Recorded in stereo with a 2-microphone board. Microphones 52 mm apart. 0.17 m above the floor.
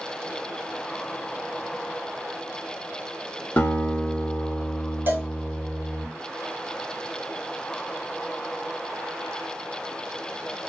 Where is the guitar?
35° left (ahead or behind), 0.7 m.